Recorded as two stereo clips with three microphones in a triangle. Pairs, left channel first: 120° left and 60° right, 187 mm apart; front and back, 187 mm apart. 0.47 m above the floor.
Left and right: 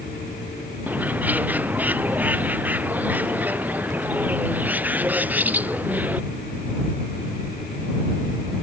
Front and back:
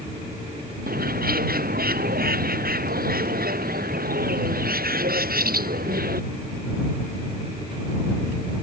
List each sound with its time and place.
0.9 s a bird: 140° right